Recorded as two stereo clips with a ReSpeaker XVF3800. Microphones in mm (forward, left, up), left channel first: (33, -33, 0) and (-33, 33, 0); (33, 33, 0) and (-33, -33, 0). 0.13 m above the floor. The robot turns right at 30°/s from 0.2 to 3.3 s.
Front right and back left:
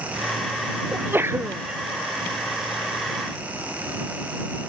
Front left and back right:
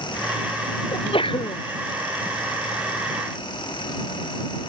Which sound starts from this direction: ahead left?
A sneeze, at 0.9 s.